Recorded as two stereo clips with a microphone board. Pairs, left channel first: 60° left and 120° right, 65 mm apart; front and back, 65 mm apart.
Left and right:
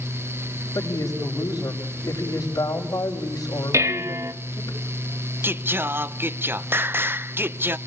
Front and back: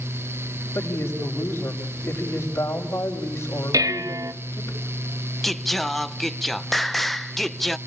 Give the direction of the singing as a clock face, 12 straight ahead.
3 o'clock.